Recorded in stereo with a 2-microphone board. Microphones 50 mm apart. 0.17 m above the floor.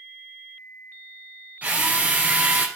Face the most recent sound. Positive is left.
turn(degrees=-35)  # may be behind; listen again after turning